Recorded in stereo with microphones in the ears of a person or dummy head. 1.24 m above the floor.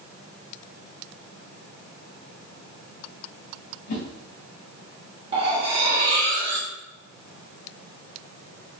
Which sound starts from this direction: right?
Cutlery clinking, at 5.3 s.